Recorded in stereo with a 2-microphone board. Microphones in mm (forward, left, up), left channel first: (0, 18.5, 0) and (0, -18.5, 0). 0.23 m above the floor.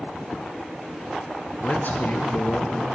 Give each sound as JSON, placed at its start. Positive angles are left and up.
{"t": 1.6, "sound": "a man speaking", "side_deg": 50, "distance_m": 3.5}